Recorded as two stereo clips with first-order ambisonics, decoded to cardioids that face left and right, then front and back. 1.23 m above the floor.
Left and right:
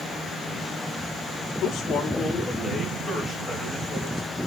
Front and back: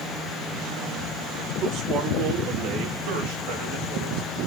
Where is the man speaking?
135° left, 1.6 m; by 4.4 s 170° right, 4.5 m.